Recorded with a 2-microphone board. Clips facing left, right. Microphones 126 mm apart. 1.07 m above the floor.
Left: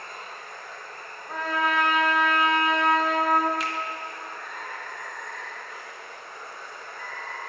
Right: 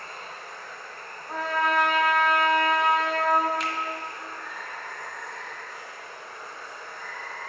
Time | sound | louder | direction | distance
0.0 | running water | even | 50° left (ahead or behind) | 1.5 m
1.3 | a trumpet | right 1 dB | centre (ahead or behind) | 0.5 m
3.6 | a finger snap | even | centre (ahead or behind) | 0.6 m